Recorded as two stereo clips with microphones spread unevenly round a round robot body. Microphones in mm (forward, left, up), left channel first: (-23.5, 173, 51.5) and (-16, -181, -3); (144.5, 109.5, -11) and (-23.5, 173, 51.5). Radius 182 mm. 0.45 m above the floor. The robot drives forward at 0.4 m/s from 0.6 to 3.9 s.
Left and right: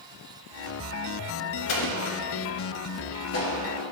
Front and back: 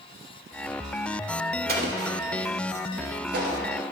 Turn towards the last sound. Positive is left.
turn(degrees=145)